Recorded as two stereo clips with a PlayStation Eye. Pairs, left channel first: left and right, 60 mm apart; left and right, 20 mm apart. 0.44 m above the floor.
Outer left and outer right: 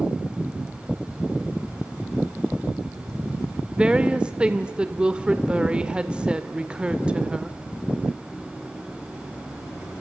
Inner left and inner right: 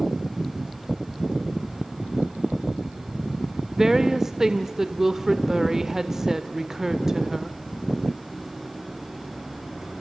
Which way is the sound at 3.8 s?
15° right (ahead or behind).